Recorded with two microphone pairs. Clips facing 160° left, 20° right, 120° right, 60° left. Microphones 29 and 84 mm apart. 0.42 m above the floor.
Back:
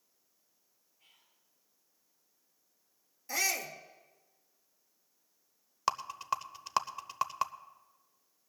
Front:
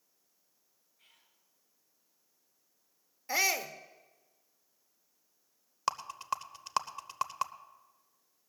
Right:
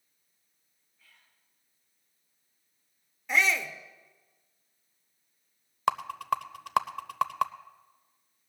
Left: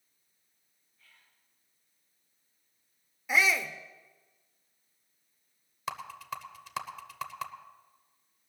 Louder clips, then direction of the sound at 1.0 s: Even, even; 35° right.